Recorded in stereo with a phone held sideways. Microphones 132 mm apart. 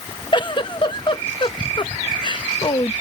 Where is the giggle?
35° left (ahead or behind).